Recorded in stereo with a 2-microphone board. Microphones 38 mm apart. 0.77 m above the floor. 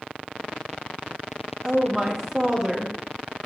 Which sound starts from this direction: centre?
A woman speaking, at 1.6 s.